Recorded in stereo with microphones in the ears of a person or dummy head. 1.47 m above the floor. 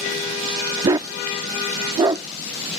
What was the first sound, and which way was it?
A dog barking, 20° right (ahead or behind).